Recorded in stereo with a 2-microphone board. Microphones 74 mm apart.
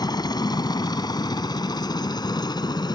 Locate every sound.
0.0 s a helicopter: 60° left (ahead or behind); by 3.0 s 65° left (ahead or behind)